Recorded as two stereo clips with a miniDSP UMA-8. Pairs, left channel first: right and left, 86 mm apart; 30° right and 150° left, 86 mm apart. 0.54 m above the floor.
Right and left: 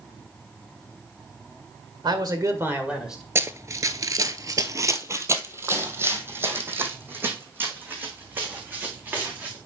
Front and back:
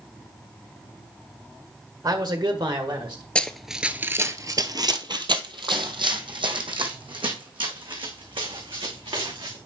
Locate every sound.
2.0 s a man speaking: 115° left, 1.7 m; by 3.2 s straight behind, 1.9 m
3.4 s running footsteps: 45° left, 0.6 m; by 9.6 s 160° left, 3.5 m